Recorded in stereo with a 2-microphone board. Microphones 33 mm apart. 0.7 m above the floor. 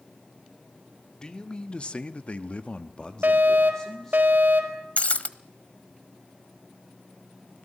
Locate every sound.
1.2 s a man speaking: 25° left (ahead or behind), 1.8 m; by 4.2 s 15° left (ahead or behind), 2.5 m
3.2 s a fire alarm: 65° right (ahead or behind), 4 m
5.0 s breaking glass: 45° left (ahead or behind), 0.9 m